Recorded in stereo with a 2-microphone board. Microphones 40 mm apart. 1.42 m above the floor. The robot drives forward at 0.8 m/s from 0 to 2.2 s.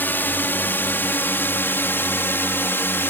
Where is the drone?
55° left (ahead or behind); by 3.1 s 65° left (ahead or behind).